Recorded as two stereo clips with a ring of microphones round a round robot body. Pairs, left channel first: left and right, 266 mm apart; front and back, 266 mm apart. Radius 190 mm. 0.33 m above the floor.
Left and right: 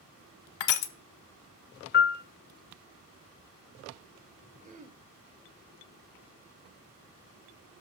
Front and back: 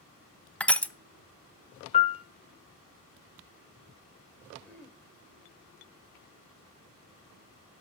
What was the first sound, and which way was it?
Crushing, 85° left.